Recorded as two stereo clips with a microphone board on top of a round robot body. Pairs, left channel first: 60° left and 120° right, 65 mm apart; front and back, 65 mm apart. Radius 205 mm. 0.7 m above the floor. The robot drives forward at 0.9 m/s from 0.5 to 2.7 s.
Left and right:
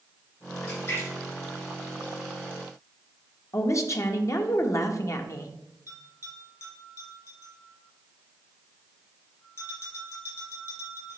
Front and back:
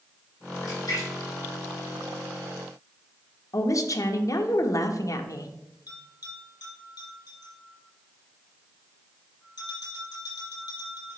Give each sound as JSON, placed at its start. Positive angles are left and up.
{"t": 0.6, "sound": "a splash", "azimuth_deg": 15, "distance_m": 4.0}
{"t": 3.5, "sound": "a woman speaking", "azimuth_deg": 25, "distance_m": 1.0}
{"t": 5.9, "sound": "a bell", "azimuth_deg": 20, "distance_m": 3.5}